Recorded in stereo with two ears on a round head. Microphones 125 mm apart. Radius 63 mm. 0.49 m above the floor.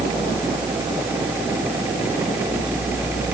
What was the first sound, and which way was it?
Only background noise.